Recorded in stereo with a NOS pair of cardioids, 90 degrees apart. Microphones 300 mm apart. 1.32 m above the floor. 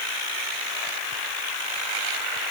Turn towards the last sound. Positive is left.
No sound to turn to.